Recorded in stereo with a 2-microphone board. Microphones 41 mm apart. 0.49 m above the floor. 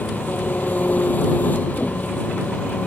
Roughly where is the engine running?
Left.